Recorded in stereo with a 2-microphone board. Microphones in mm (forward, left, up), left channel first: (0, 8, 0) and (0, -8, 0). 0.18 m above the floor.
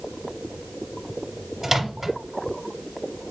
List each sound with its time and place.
1.6 s a microwave: 10° right (ahead or behind), 1.1 m